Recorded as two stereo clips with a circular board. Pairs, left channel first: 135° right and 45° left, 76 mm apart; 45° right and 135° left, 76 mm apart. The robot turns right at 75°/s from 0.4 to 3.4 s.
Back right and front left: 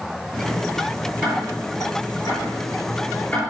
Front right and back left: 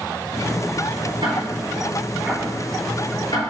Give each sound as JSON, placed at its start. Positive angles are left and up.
{"t": 1.2, "sound": "ticking", "azimuth_deg": 140, "distance_m": 4.0}